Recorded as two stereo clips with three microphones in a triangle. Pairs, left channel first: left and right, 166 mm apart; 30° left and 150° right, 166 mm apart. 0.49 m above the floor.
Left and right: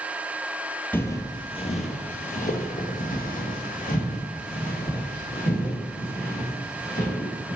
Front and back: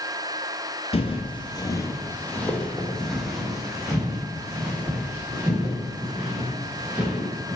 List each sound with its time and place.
0.9 s footsteps: 20° left, 0.5 m; by 7.6 s 130° left, 3.5 m